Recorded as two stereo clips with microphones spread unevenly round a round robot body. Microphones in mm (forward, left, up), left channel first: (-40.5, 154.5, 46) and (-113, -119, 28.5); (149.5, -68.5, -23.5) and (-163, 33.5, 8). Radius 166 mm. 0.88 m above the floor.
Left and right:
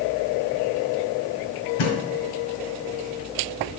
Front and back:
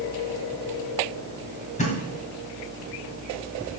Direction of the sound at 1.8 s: 55° left.